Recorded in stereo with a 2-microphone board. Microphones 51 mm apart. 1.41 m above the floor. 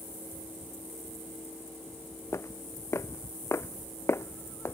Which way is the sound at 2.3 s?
70° left (ahead or behind).